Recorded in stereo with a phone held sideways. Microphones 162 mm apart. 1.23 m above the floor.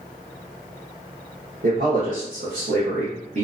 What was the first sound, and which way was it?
A man speaking, 65° right (ahead or behind).